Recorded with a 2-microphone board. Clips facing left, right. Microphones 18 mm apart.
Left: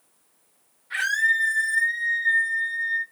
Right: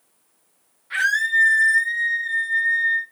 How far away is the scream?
About 1.1 m.